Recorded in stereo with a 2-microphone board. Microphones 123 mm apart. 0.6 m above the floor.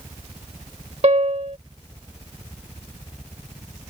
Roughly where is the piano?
Right.